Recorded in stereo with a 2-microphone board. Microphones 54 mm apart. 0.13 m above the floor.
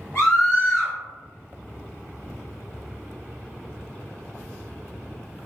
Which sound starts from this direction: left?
A scream, at 0.1 s.